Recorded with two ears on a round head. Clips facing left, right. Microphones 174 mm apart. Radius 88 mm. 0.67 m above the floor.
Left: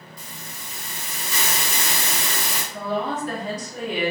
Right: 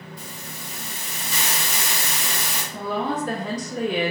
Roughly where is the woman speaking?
Right.